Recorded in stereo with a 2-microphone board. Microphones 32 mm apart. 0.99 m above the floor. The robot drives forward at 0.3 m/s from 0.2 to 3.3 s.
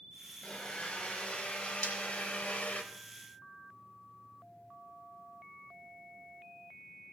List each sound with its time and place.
0.4 s a blender: 35° left (ahead or behind), 1.8 m; by 2.8 s 50° left (ahead or behind), 1.3 m
1.8 s breaking glass: 75° left (ahead or behind), 2.5 m